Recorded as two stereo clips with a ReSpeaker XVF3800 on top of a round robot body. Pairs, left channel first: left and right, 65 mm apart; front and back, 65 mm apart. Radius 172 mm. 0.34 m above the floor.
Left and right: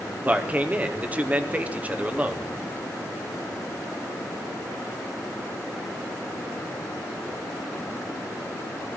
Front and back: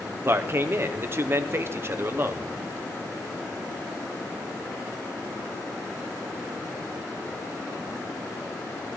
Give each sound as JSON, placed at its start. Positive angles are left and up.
{"t": 0.2, "sound": "a man speaking", "azimuth_deg": -145, "distance_m": 1.2}